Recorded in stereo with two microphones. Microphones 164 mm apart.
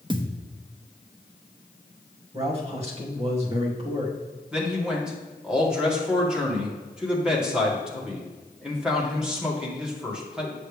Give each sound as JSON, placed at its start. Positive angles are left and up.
{"t": 0.1, "sound": "a thud", "side_deg": -30, "distance_m": 0.8}
{"t": 2.3, "sound": "a man speaking", "side_deg": -40, "distance_m": 2.5}
{"t": 4.5, "sound": "a man speaking", "side_deg": -5, "distance_m": 2.0}